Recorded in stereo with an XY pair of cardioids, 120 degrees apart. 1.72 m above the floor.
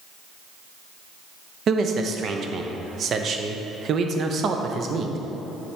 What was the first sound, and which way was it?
A man speaking, 45° right.